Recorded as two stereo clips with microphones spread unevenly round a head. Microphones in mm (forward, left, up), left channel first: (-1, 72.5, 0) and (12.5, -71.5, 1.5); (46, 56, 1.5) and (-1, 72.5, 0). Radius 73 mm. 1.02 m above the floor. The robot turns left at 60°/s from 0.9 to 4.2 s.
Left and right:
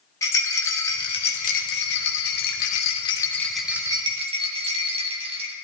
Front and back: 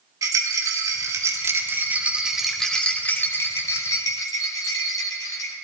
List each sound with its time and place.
0.2 s a rattle: 165° left, 1.5 m; by 5.5 s 30° right, 1.5 m